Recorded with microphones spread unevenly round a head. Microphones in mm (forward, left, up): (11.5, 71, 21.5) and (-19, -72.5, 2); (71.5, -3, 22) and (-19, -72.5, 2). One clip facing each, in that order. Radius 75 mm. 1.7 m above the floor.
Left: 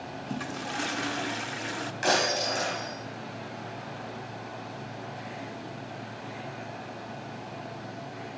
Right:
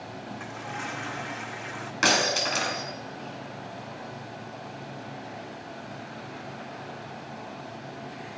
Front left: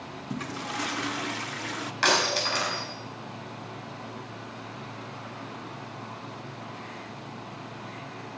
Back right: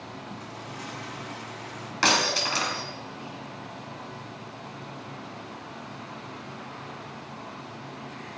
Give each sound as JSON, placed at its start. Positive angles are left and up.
{"t": 0.3, "sound": "a toilet flushing", "azimuth_deg": 30, "distance_m": 0.5}
{"t": 2.0, "sound": "breaking glass", "azimuth_deg": -85, "distance_m": 4.5}